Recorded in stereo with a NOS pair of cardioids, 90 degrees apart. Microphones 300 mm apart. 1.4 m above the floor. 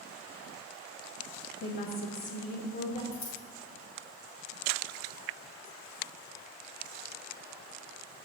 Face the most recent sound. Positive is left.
turn(degrees=65)